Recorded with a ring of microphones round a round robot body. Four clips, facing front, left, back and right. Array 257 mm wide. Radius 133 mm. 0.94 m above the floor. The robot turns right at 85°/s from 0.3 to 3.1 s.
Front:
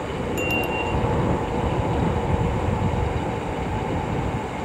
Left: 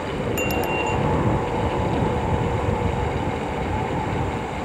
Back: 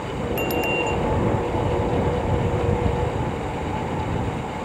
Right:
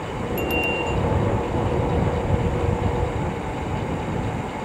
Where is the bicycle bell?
120° left; by 1.0 s 170° left.